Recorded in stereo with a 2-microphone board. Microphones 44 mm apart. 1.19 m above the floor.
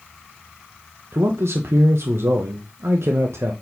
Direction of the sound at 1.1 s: 80° right.